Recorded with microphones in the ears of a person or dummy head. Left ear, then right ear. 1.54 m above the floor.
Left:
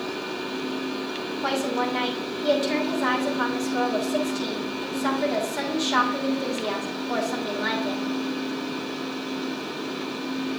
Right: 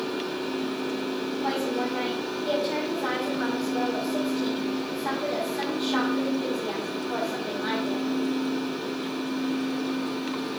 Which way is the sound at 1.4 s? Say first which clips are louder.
Left 4 dB; 80° left.